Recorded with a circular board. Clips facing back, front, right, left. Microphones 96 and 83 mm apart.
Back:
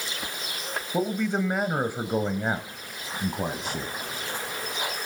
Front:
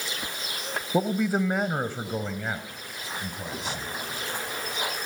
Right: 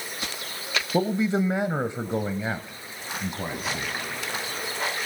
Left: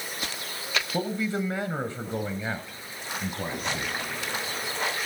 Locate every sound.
0.9 s a man speaking: 55° right, 1.0 m; by 3.9 s 175° right, 1.5 m